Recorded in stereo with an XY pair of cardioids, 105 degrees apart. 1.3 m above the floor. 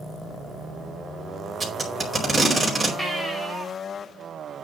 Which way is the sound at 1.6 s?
5° right.